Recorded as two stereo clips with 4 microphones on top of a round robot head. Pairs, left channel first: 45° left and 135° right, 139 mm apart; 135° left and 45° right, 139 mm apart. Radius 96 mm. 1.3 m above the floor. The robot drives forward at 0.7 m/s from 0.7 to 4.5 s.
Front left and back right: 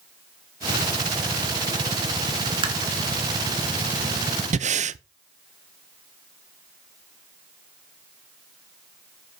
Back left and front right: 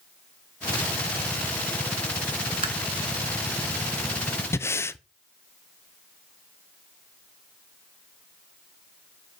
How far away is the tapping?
About 1.0 m.